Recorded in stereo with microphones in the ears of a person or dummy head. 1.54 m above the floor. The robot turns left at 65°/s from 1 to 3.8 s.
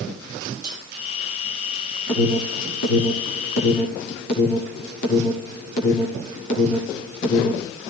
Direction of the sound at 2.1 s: 15° left (ahead or behind).